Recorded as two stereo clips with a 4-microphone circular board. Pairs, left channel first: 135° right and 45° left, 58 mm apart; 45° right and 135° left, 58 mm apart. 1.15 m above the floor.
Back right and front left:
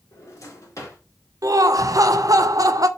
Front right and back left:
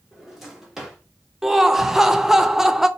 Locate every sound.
0.1 s a drawer: 140° right, 1.2 m
1.4 s laughter: 55° left, 0.5 m